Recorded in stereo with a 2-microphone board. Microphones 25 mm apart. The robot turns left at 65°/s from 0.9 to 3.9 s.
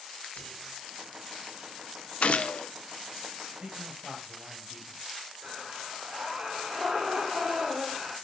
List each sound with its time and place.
0.4 s whispering: 75° left (ahead or behind), 4.5 m
2.2 s a gunshot: 105° left, 0.6 m; by 2.7 s 75° left, 0.6 m
3.6 s a man speaking: 50° right (ahead or behind), 6.5 m; by 5.0 s 35° right (ahead or behind), 6.5 m
5.4 s breathing: 40° right (ahead or behind), 5 m